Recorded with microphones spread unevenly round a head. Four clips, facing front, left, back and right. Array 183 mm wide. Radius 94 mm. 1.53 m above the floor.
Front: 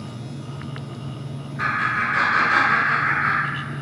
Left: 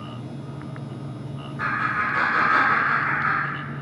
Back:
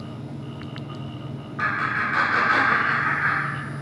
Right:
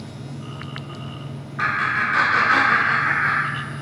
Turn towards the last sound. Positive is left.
turn(degrees=-145)